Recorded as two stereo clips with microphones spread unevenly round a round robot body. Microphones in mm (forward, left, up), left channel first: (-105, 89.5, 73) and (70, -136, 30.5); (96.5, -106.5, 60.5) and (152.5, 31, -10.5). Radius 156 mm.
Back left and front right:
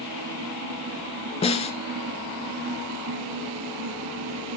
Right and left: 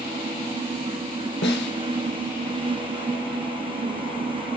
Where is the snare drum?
160° right, 1.3 m.